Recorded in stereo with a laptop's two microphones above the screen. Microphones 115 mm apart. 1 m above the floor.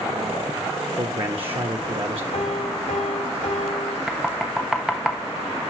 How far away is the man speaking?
About 1.3 m.